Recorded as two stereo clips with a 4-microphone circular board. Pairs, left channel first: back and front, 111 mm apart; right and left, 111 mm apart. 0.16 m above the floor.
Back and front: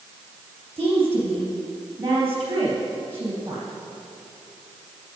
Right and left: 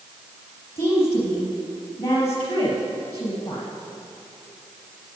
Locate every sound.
0.8 s a woman speaking: 65° right, 3.5 m